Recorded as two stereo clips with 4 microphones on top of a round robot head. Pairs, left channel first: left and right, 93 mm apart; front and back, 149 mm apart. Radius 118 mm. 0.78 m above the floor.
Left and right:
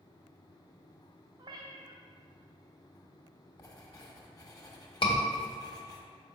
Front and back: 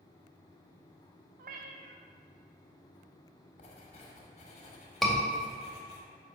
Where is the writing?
45° left, 1.5 m.